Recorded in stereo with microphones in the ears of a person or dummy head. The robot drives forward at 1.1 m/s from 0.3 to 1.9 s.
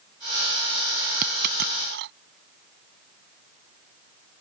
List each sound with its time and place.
1.2 s a dropped coin: 55° right (ahead or behind); by 2.1 s 60° right (ahead or behind)